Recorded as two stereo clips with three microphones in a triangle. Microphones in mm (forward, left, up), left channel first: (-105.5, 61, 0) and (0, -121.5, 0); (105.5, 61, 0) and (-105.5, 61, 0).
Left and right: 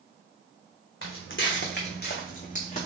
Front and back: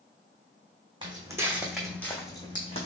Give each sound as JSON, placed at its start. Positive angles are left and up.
{"t": 1.0, "sound": "footsteps", "azimuth_deg": 110, "distance_m": 1.1}